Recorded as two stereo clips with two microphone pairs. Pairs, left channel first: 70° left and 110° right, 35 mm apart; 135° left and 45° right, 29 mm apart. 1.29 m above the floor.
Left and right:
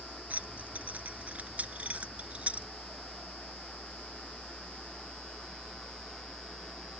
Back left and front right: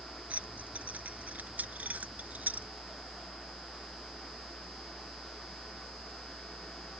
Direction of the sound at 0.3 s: 70° right.